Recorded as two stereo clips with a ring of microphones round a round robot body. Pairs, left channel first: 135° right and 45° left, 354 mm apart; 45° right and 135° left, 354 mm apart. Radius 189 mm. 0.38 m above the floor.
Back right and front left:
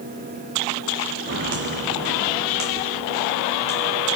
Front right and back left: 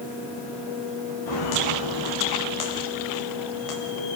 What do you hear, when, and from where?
1.3 s footsteps: 15° right, 6.5 m; by 4.2 s 20° right, 4.5 m